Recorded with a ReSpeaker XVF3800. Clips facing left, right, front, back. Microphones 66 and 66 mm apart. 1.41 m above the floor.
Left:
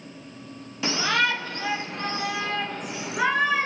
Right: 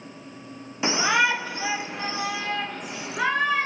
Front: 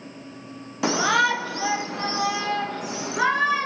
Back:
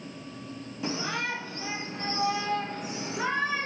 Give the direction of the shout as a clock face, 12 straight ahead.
1 o'clock.